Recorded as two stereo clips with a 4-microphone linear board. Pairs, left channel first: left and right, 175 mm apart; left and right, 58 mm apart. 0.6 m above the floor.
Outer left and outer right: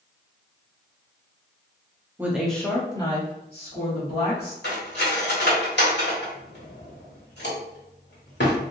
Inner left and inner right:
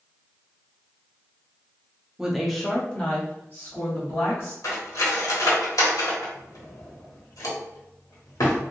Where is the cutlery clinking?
85° left, 1.2 m.